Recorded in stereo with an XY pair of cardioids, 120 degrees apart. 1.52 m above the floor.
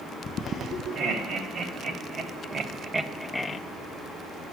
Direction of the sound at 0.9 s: 45° right.